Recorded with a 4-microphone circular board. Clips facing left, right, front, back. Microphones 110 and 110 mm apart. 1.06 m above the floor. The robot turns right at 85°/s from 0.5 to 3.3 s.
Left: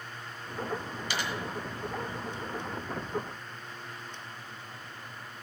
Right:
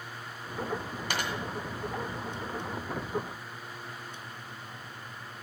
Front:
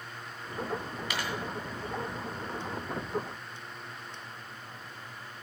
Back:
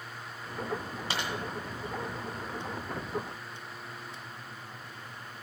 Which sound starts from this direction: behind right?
A dropped coin, at 1.1 s.